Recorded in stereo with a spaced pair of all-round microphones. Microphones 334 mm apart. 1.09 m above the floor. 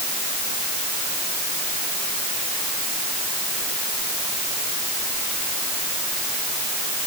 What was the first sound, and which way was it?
Only background noise.